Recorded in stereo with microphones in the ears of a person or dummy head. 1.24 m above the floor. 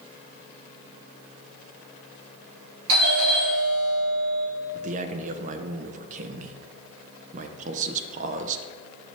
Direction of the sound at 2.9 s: 70° right (ahead or behind).